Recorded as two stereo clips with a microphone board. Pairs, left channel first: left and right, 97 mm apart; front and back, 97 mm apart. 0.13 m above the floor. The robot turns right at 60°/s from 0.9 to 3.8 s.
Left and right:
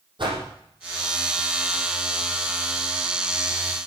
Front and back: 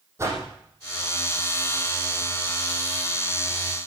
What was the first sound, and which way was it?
A whoosh, 120° right.